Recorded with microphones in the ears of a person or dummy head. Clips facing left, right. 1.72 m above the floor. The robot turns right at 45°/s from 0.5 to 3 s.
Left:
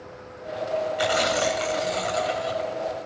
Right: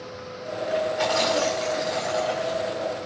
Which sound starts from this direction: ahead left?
Tearing paper, at 1.0 s.